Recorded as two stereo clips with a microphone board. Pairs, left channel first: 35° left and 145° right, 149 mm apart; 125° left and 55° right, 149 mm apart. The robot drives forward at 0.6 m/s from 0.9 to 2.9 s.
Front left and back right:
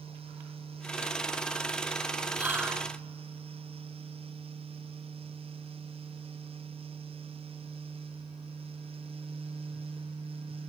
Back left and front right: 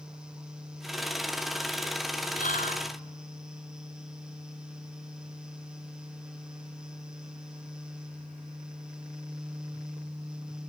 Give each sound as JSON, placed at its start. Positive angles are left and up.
{"t": 2.4, "sound": "whispering", "azimuth_deg": 135, "distance_m": 2.5}